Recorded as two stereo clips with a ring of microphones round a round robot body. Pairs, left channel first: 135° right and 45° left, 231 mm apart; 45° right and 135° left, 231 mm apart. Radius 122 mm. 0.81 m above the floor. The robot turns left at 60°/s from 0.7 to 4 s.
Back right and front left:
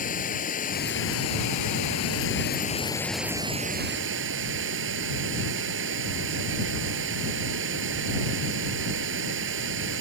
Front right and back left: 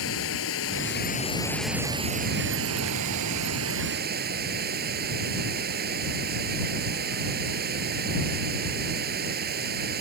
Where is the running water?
80° right; by 10.0 s 85° left.